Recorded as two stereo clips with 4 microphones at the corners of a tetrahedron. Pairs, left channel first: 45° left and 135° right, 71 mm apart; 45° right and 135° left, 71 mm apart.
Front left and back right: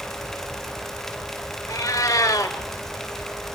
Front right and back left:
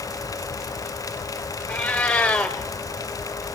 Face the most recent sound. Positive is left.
turn(degrees=25)